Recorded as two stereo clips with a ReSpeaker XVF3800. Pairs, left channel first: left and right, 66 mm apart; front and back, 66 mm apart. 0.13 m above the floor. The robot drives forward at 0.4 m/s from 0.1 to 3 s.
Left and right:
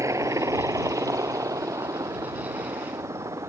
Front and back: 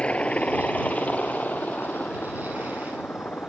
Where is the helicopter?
70° right; by 3.5 s 65° right.